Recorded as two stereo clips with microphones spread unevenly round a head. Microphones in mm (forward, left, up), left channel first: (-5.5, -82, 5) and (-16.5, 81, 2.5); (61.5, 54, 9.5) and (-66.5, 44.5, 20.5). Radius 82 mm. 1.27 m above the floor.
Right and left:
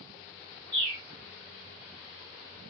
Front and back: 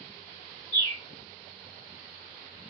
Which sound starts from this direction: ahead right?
A bird, at 0.7 s.